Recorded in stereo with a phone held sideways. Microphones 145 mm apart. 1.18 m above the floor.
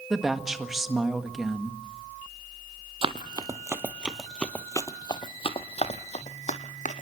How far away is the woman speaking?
About 1.7 m.